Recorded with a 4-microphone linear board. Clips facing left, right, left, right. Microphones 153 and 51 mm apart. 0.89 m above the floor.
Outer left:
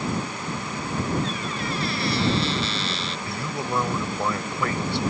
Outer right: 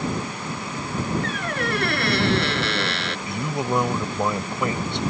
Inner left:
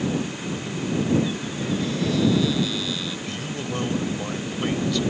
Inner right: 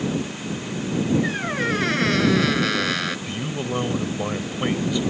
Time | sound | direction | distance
1.2 | a squeak | 65° right (ahead or behind) | ?
3.3 | a man speaking | 20° right (ahead or behind) | ?